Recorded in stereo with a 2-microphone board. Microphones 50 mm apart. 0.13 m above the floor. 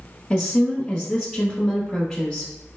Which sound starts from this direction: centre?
A woman speaking, at 0.3 s.